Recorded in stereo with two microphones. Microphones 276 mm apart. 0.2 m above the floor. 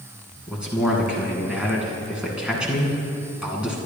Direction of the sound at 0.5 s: 5° right (ahead or behind).